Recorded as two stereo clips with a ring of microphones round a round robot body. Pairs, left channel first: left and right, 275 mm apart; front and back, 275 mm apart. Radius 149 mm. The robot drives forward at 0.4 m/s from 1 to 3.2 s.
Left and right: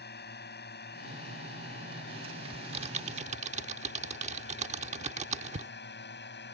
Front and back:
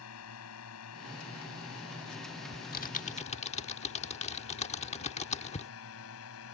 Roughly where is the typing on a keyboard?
Ahead right.